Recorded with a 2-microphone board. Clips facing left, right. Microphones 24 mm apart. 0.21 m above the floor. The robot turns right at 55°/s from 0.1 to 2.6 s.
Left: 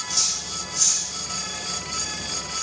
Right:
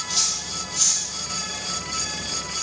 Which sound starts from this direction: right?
Cutlery clinking, at 0.1 s.